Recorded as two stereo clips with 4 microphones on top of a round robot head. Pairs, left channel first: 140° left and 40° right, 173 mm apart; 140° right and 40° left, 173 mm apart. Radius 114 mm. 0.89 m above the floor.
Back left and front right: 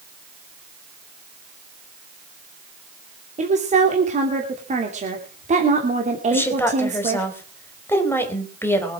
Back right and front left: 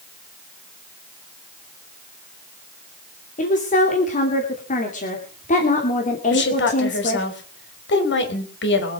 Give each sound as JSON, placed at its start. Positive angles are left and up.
{"t": 3.4, "sound": "a woman speaking", "azimuth_deg": -90, "distance_m": 2.5}
{"t": 6.3, "sound": "a woman speaking", "azimuth_deg": -145, "distance_m": 3.5}